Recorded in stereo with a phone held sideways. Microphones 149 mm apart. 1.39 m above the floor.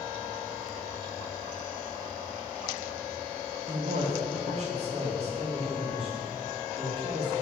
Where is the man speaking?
60° right (ahead or behind), 1.2 m; by 7.3 s 35° right (ahead or behind), 3.5 m.